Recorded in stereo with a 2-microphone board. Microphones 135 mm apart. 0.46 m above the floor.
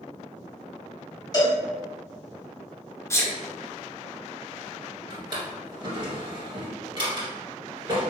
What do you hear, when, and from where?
1.3 s a cowbell: 30° left (ahead or behind), 1.0 m
3.1 s a sneeze: 20° left (ahead or behind), 0.8 m
5.1 s a drawer: 35° right (ahead or behind), 1.5 m